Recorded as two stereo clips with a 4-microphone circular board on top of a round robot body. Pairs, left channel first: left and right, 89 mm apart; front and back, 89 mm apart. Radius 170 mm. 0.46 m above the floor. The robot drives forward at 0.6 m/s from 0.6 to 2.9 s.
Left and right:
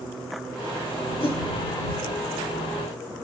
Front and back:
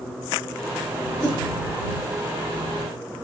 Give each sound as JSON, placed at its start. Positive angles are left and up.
{"t": 1.2, "sound": "a whoosh", "azimuth_deg": 85, "distance_m": 5.0}